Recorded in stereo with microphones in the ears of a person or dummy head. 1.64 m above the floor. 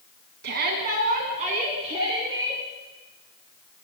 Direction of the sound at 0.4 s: 55° right (ahead or behind).